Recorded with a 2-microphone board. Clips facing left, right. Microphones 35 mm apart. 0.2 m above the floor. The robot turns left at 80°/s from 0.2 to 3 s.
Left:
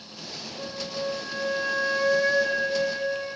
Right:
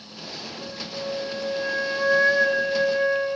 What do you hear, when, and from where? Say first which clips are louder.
0.6 s a flute: left 3 dB; 25° left (ahead or behind), 0.9 m; by 3.4 s 30° right (ahead or behind), 0.9 m